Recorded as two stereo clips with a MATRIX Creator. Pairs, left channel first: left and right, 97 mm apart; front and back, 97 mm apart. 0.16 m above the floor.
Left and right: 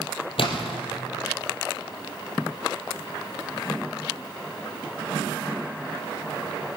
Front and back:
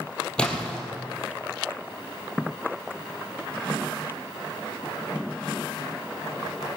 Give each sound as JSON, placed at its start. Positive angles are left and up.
{"t": 0.4, "sound": "a splash", "azimuth_deg": 80, "distance_m": 2.5}